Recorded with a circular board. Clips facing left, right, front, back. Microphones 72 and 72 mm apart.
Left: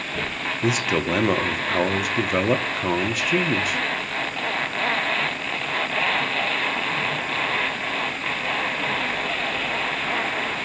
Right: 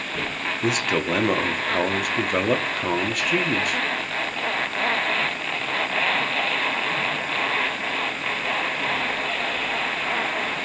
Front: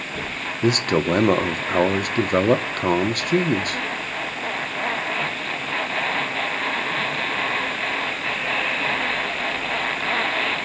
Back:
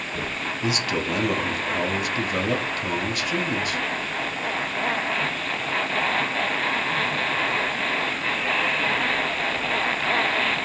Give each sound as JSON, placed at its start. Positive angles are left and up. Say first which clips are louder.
{"t": 0.6, "sound": "a man speaking", "louder": "left 1 dB, front 7 dB", "azimuth_deg": 0, "distance_m": 0.9}